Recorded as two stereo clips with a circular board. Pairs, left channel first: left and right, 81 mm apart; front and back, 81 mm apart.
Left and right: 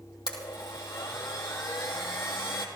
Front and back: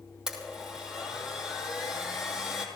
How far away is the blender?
About 3 m.